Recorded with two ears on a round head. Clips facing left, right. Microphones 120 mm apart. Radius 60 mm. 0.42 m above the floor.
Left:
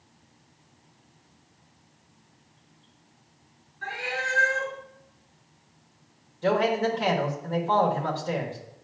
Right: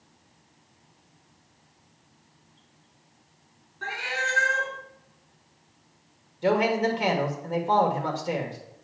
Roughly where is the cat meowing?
Right.